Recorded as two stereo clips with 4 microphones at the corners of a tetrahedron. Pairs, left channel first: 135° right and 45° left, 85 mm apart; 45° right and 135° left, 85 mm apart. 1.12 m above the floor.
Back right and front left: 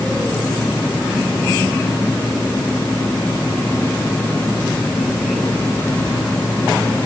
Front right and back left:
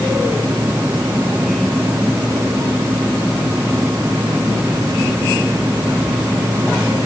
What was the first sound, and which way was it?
Only background noise.